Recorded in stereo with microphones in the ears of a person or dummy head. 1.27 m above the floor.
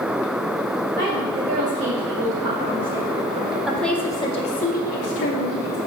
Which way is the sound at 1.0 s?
45° right (ahead or behind).